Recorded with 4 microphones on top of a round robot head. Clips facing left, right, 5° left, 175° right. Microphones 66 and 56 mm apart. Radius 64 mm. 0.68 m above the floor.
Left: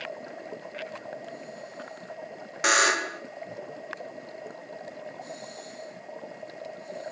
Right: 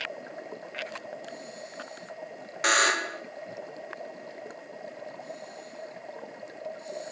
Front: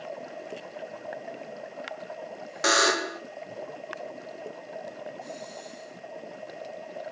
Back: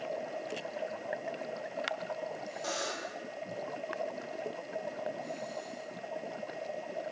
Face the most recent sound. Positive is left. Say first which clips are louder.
# left 1 dB, front 16 dB
turn(degrees=5)